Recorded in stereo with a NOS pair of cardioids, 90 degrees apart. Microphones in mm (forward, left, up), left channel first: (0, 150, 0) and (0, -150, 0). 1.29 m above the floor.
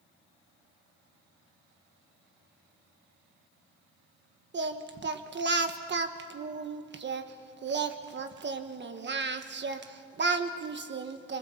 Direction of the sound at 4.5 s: 40° right.